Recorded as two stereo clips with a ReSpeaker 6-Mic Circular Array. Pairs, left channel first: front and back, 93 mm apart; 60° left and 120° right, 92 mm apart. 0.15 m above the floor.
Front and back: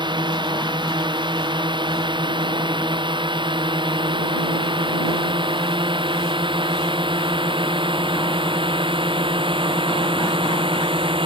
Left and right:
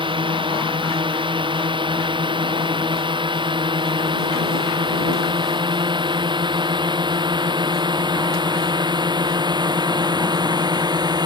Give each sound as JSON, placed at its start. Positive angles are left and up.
{"t": 0.0, "sound": "a drone", "azimuth_deg": -150}